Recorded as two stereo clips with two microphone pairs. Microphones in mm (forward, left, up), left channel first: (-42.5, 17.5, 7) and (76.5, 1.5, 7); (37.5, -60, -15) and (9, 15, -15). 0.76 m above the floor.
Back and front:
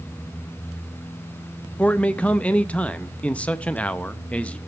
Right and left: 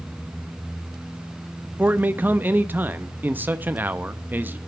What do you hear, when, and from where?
1.8 s a man speaking: 110° left, 0.8 m